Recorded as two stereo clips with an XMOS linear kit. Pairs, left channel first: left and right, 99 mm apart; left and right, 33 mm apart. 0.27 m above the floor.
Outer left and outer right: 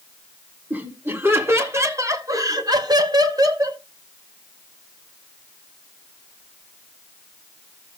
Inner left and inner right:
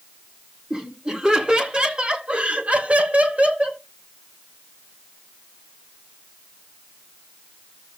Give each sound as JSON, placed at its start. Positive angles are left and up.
{"t": 0.7, "sound": "laughter", "side_deg": -20, "distance_m": 3.0}